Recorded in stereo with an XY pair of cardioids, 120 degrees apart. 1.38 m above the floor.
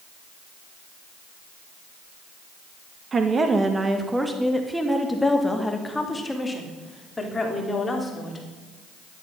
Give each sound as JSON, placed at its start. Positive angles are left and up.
{"t": 3.1, "sound": "a woman speaking", "azimuth_deg": -35, "distance_m": 1.2}